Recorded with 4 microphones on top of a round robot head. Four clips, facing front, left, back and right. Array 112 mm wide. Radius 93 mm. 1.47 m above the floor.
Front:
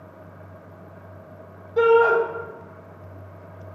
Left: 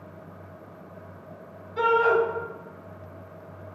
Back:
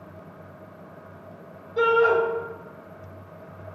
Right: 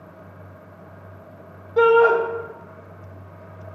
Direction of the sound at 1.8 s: 75° right.